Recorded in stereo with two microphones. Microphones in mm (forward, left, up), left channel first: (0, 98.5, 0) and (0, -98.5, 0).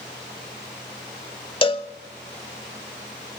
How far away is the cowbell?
About 0.7 m.